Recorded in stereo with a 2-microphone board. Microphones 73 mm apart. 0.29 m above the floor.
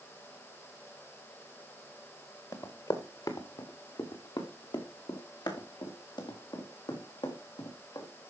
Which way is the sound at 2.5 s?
55° left (ahead or behind).